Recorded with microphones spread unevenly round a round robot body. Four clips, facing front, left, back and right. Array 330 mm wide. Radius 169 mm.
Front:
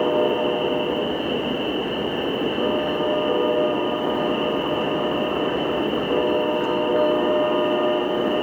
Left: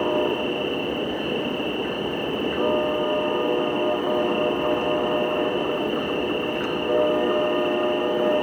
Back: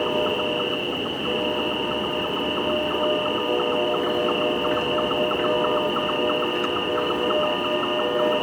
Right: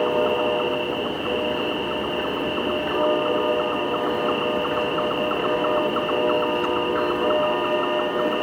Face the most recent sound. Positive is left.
turn(degrees=145)